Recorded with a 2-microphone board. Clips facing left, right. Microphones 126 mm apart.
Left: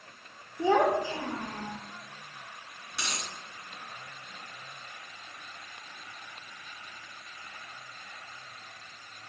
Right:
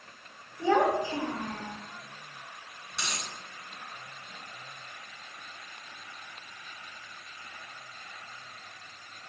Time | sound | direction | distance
0.6 | a child speaking | 30° left (ahead or behind) | 0.6 m
2.9 | a dropped coin | 5° left (ahead or behind) | 1.3 m